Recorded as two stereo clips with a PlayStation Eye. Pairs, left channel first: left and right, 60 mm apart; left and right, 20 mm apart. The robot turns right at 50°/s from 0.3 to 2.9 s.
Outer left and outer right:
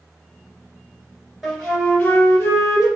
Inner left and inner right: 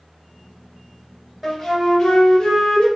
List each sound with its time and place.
1.4 s a flute: 5° left, 2 m; by 2.9 s 80° left, 2 m